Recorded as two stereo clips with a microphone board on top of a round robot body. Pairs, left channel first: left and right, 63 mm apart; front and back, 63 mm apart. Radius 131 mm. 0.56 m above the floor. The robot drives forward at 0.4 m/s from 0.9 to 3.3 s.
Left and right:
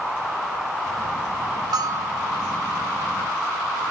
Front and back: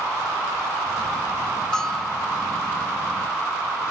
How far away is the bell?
About 1.7 m.